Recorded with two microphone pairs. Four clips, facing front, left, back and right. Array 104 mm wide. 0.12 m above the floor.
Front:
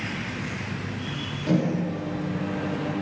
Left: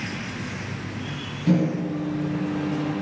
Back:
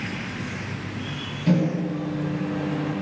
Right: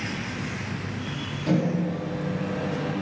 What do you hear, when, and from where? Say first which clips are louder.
1.5 s a microwave: left 2 dB, back 2 dB; 175° right, 1.6 m